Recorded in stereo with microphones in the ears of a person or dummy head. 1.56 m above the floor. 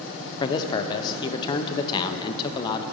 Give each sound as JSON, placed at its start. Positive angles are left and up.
{"t": 0.4, "sound": "a man speaking", "side_deg": 30, "distance_m": 0.6}